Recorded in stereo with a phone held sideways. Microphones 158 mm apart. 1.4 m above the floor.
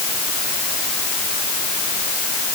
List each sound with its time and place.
Only background noise.